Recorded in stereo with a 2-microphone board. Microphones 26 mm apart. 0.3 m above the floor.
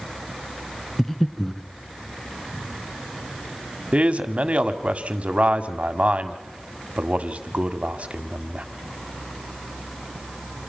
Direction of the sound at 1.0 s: 10° left (ahead or behind).